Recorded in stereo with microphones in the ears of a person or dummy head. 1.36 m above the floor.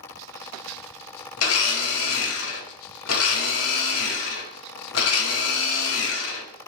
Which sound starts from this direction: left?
A blender, at 1.4 s.